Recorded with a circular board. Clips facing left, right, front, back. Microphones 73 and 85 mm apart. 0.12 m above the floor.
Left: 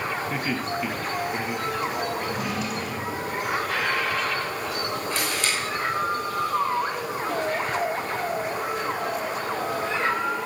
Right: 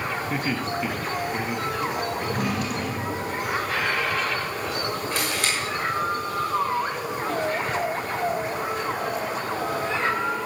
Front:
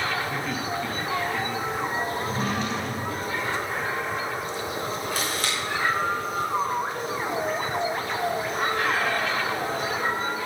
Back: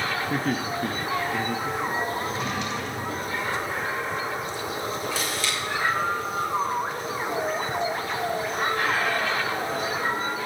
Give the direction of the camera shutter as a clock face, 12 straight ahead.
1 o'clock.